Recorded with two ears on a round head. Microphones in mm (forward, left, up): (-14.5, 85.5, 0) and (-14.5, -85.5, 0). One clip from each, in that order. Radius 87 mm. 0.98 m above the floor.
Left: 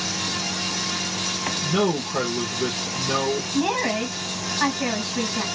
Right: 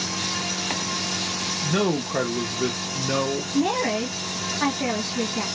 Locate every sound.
1.6 s a man speaking: 20° right (ahead or behind), 0.5 m
3.5 s a woman speaking: 20° left (ahead or behind), 1.5 m